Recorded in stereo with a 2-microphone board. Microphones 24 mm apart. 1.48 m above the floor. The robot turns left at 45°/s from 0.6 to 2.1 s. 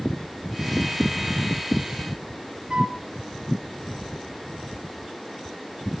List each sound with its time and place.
2.7 s a flute: 40° right (ahead or behind), 2.5 m